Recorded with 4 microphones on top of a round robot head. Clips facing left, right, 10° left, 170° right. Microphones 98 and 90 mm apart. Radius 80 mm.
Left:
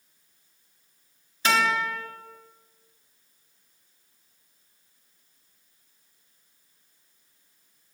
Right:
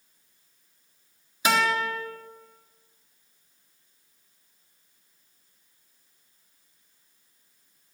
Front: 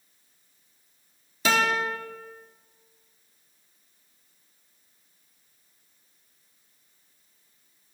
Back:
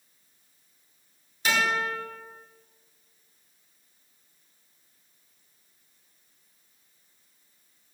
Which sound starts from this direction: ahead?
A guitar, at 1.4 s.